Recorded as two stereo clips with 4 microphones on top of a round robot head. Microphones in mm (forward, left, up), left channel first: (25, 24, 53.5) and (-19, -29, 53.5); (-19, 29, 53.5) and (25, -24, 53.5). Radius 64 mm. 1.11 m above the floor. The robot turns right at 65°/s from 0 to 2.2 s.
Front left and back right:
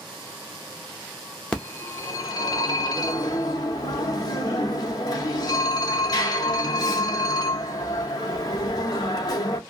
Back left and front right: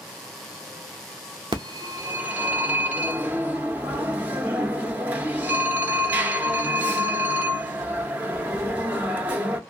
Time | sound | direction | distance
1.5 | a phone ringing | 30° right | 0.5 m